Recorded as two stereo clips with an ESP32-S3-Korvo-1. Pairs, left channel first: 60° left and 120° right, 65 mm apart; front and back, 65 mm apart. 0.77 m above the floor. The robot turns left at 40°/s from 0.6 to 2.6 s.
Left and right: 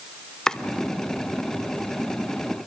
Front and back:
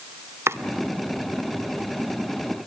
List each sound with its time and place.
0.5 s chopping: 140° left, 0.7 m